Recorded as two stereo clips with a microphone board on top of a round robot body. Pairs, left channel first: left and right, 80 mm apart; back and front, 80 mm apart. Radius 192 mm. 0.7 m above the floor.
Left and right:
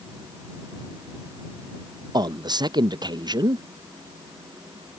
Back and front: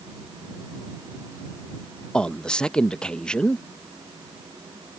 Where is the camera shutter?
I don't hear a camera shutter.